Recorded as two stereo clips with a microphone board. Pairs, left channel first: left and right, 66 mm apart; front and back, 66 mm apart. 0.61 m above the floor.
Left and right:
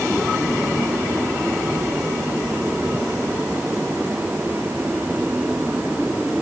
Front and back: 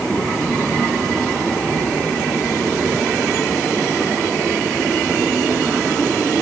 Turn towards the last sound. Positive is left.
No sound to turn to.